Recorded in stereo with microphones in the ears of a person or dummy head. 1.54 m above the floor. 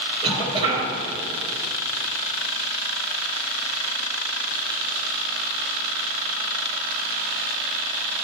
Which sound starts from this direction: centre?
A cough, at 0.2 s.